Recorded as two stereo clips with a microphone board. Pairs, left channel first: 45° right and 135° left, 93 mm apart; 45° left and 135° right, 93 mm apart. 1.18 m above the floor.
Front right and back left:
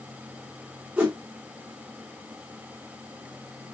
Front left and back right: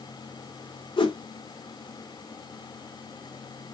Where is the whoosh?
65° left, 2.5 m.